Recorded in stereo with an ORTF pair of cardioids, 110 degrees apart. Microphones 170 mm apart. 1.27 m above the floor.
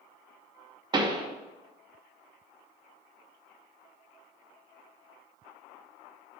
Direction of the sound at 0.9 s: 25° right.